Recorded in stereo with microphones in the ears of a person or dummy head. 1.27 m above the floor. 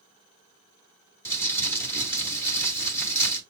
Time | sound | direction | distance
1.2 | crumpling | 15° left (ahead or behind) | 1.5 m